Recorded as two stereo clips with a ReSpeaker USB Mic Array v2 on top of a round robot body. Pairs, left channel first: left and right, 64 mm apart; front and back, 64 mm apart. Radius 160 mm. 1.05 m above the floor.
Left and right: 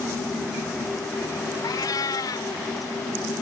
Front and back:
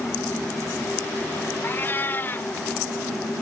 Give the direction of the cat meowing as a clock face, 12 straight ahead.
10 o'clock.